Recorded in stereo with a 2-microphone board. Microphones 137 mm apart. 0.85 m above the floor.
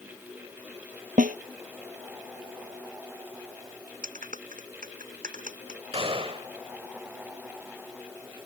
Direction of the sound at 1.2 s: 75° right (ahead or behind).